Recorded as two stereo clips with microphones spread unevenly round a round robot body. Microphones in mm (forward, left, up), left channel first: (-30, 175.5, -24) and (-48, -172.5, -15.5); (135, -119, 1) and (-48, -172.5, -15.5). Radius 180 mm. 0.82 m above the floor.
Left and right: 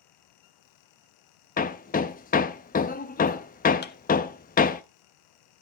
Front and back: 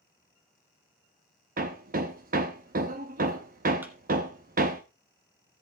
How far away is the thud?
About 0.7 m.